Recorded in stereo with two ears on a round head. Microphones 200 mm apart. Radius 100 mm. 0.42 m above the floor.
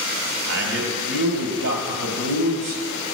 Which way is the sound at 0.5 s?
65° right (ahead or behind).